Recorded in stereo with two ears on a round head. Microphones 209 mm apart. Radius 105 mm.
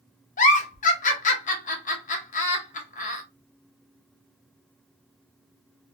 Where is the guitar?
I don't hear a guitar.